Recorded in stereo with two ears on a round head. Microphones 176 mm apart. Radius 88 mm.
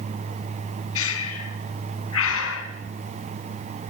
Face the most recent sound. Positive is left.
turn(degrees=75)  # may be behind; listen again after turning